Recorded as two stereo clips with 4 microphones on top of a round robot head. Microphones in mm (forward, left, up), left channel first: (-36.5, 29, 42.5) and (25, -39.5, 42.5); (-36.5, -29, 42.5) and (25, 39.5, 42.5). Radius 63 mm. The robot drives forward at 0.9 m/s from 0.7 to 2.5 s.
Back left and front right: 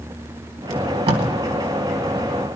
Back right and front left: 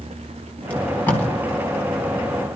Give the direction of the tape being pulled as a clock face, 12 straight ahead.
2 o'clock.